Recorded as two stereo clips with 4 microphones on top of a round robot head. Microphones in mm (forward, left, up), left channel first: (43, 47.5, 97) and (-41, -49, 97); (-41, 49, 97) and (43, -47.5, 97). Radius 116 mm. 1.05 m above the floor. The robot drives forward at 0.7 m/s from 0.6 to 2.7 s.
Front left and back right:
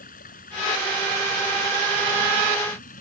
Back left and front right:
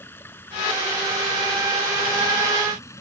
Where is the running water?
60° left; by 3.0 s 65° left.